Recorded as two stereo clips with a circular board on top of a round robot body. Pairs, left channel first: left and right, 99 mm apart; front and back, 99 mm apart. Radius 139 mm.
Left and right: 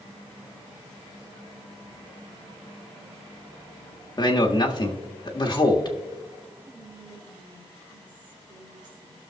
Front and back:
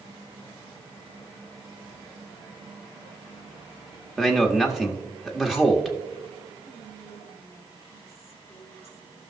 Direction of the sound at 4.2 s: 95° left.